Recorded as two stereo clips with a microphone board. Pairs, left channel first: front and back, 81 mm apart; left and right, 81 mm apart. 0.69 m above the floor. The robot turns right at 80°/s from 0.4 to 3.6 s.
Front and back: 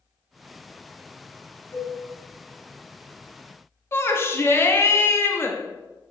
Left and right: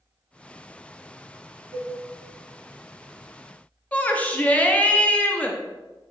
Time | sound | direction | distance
1.7 | a cowbell | 50° right | 2 m
3.9 | a shout | 30° left | 0.8 m